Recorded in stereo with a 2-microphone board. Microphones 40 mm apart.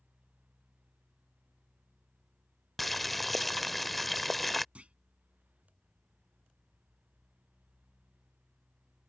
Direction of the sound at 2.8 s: 5° left (ahead or behind).